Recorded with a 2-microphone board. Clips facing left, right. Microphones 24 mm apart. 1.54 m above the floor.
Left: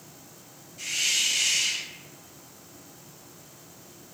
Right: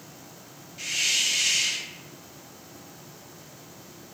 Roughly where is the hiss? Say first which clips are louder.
Right 1 dB; right.